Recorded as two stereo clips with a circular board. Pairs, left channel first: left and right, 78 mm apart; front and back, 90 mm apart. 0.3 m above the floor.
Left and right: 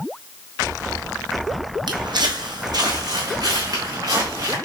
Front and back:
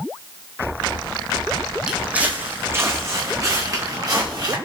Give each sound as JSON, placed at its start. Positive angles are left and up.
{"t": 1.9, "sound": "footsteps", "azimuth_deg": -100, "distance_m": 0.9}